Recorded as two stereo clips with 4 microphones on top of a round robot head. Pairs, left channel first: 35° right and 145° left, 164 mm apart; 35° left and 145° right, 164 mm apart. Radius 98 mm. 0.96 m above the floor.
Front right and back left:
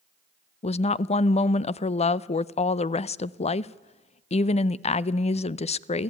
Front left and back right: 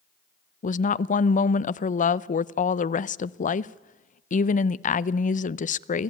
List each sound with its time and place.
0.6 s a woman speaking: 5° left, 0.6 m